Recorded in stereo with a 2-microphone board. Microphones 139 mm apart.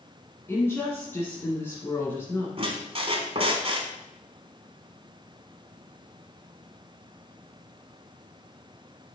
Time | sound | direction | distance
0.5 | a woman speaking | 15° left (ahead or behind) | 1.9 m
2.6 | a squeak | 45° right (ahead or behind) | 1.3 m